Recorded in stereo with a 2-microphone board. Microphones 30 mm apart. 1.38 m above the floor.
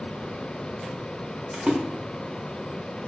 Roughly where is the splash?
Right.